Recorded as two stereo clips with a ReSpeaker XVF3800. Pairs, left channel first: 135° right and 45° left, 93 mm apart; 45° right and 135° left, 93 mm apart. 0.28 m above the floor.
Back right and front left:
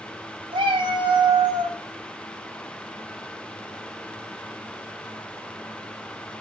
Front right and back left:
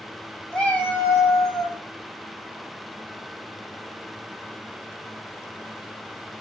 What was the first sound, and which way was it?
A cat meowing, 40° left.